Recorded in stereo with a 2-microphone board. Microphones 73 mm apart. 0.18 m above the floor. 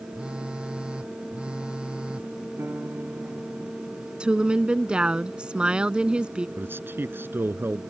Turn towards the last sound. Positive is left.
turn(degrees=-30)  # may be behind; listen again after turning